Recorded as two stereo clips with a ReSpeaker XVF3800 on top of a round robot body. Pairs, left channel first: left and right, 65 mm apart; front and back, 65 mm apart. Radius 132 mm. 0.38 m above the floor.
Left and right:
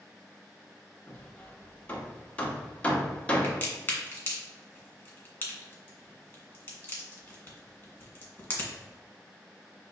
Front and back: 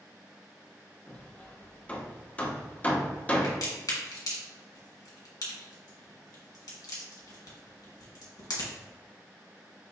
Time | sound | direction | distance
1.1 | hammering | 40° left | 0.9 m
3.4 | a crack | 25° left | 1.8 m